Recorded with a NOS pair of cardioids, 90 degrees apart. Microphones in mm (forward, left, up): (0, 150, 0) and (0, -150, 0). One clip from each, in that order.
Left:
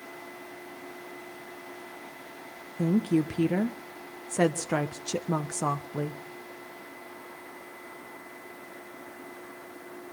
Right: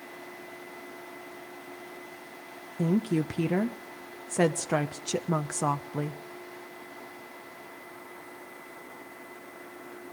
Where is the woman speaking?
5° right, 0.9 m.